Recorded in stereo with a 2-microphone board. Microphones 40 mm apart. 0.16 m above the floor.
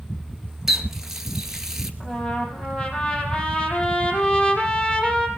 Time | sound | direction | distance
0.7 | a running tap | 10° right (ahead or behind) | 1.7 m
2.0 | a trumpet | 20° left (ahead or behind) | 5 m